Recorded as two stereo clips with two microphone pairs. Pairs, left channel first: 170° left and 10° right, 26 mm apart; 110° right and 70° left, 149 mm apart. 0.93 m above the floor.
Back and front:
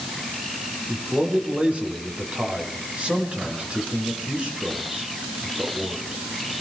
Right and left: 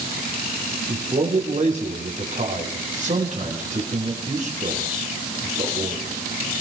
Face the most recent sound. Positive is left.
turn(degrees=35)